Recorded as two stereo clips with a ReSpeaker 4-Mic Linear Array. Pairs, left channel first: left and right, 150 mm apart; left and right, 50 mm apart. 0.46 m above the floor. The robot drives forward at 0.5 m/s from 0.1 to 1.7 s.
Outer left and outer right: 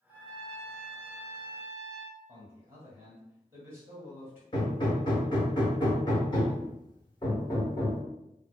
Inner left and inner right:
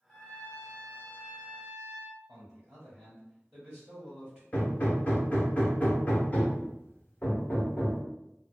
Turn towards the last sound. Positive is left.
turn(degrees=30)  # may be behind; listen again after turning